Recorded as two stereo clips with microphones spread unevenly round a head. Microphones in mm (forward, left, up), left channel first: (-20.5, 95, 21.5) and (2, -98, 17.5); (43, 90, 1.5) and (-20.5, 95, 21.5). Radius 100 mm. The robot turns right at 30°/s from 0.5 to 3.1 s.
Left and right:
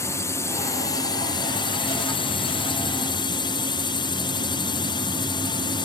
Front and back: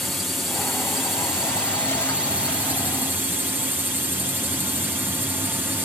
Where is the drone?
40° left; by 5.9 s 120° left.